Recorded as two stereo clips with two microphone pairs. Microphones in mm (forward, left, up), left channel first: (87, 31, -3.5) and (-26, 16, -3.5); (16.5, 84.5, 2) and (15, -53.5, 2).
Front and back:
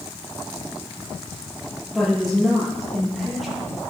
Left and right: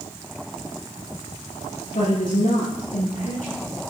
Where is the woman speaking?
100° left, 8 m.